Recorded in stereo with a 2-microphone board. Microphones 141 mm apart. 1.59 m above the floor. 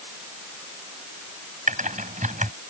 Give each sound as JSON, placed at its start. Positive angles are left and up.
{"t": 1.7, "sound": "typing on a keyboard", "side_deg": -70}